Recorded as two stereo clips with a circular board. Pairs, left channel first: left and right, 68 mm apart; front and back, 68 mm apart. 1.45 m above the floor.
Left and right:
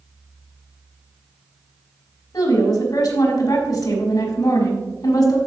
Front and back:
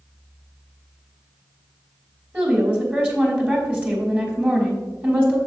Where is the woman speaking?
110° left, 3 m.